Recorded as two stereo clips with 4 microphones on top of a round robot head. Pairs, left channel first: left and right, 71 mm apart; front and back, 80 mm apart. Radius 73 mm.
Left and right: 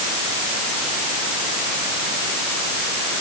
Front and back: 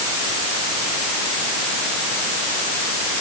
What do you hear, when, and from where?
Only background noise.